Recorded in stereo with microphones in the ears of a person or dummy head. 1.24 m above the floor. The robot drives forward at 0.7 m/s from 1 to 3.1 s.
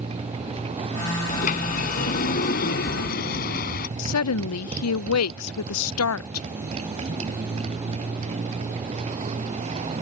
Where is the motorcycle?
35° right (ahead or behind).